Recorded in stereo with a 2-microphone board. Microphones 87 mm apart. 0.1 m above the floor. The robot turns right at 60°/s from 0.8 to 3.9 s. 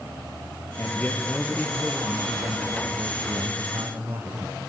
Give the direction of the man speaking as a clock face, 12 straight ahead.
7 o'clock.